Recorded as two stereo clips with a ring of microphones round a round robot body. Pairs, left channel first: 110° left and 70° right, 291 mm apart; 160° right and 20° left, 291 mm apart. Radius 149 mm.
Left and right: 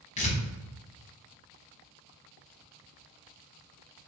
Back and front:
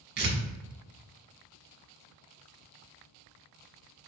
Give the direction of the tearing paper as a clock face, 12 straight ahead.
10 o'clock.